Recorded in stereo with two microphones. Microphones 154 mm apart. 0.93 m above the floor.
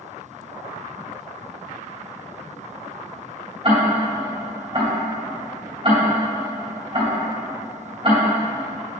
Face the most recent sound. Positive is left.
turn(degrees=-35)  # may be behind; listen again after turning